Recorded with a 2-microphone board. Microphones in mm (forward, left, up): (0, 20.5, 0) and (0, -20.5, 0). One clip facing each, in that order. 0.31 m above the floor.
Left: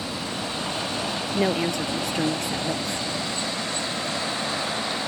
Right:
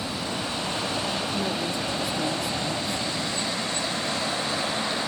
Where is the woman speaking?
65° left (ahead or behind).